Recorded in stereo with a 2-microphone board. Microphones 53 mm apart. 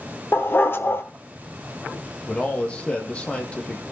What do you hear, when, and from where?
0.3 s a dog barking: 45° left (ahead or behind), 1.1 m
2.3 s a man speaking: 20° left (ahead or behind), 3.5 m